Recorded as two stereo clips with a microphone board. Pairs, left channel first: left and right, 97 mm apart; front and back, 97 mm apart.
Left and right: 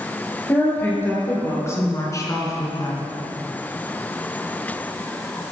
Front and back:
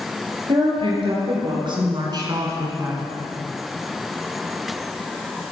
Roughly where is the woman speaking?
Behind.